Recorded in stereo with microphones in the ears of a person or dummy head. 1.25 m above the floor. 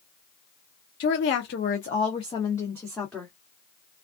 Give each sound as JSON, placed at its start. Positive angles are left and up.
{"t": 1.0, "sound": "a woman speaking", "side_deg": 55, "distance_m": 0.7}